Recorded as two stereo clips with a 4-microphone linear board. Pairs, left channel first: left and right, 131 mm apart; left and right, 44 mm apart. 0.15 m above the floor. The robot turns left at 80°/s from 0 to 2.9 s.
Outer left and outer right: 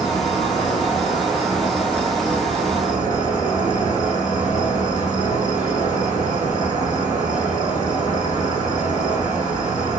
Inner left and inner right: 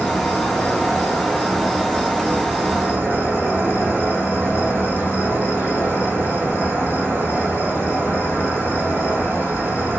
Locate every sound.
0.0 s an insect: 140° left, 1.5 m; by 10.0 s 90° right, 1.5 m